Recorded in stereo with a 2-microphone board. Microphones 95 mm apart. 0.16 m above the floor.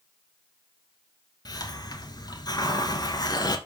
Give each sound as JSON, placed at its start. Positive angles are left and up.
{"t": 1.4, "sound": "a hiss", "side_deg": 45, "distance_m": 1.7}